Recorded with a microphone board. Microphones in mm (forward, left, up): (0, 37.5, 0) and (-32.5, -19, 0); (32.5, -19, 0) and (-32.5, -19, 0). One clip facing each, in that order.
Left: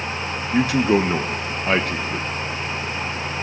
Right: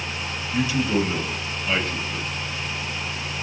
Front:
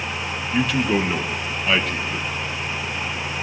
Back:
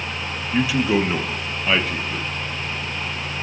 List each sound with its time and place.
0.5 s a man speaking: 95° left, 1.6 m